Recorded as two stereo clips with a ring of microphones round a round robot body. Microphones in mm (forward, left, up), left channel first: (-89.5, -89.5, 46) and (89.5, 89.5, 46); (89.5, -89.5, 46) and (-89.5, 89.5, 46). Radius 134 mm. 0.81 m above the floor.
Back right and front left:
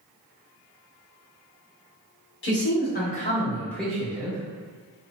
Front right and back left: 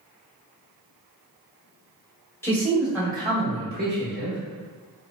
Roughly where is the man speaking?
Behind right.